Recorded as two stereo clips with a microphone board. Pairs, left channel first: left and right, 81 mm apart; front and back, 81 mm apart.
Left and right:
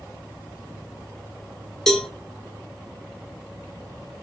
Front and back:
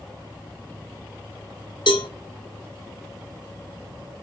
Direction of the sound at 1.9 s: 5° left.